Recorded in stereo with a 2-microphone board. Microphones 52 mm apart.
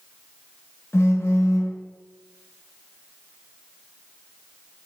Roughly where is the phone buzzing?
Left.